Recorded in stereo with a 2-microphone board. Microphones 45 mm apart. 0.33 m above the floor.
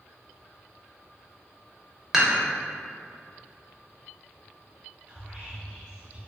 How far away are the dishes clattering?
About 0.6 m.